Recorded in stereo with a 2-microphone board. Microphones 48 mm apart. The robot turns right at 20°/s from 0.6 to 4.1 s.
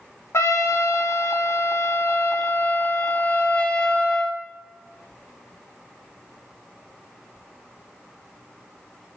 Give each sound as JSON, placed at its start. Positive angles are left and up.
{"t": 0.3, "sound": "a trumpet", "azimuth_deg": 90, "distance_m": 0.8}